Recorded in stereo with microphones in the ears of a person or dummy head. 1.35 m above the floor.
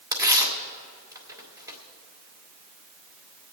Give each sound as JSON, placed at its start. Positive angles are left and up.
{"t": 0.1, "sound": "tearing paper", "side_deg": -15, "distance_m": 2.0}